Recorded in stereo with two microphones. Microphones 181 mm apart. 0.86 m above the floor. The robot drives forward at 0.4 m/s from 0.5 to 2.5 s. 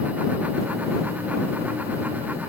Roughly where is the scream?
No scream in this recording.